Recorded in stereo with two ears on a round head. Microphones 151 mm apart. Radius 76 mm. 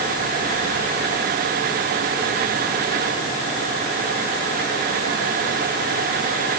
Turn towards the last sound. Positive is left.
No sound to turn to.